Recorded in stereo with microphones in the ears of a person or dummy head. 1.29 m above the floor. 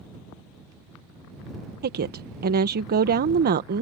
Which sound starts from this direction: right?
A woman speaking, at 1.8 s.